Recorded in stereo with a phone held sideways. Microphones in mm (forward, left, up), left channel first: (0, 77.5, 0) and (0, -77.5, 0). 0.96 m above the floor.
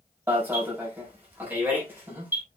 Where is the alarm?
10° right (ahead or behind), 5 m.